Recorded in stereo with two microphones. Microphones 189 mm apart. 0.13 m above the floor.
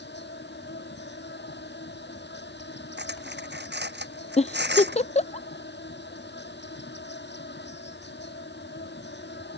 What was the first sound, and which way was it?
An insect, 65° left (ahead or behind).